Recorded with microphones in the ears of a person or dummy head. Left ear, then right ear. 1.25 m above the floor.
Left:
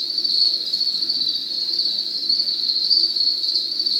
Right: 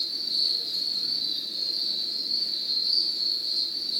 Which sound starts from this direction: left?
An insect, at 0.0 s.